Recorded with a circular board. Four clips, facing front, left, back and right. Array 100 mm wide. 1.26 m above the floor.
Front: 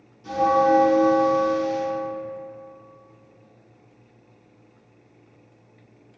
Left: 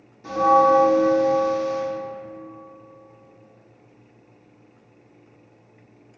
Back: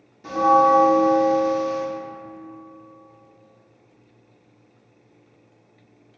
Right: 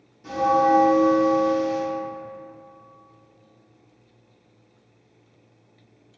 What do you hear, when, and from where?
0.2 s a bell: 155° left, 1.0 m